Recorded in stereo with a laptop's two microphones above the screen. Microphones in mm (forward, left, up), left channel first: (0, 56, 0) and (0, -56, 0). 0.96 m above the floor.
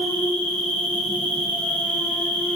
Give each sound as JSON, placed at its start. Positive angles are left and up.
{"t": 0.0, "sound": "an insect", "side_deg": 10, "distance_m": 0.9}